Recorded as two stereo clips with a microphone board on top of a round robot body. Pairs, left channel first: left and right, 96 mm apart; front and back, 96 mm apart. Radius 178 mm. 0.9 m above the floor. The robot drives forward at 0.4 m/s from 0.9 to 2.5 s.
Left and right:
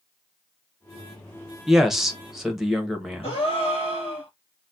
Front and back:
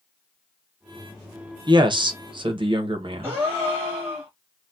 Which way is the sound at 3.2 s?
115° left.